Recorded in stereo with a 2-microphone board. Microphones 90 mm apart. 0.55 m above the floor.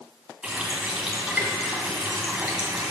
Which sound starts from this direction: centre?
A running tap, at 0.4 s.